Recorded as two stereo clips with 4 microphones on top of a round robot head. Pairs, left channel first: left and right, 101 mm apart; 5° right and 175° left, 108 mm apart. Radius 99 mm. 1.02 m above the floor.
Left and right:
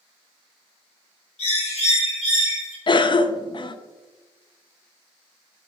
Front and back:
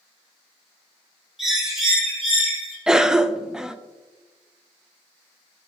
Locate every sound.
1.4 s a bird: 90° left, 3 m
2.9 s a cough: 95° left, 0.6 m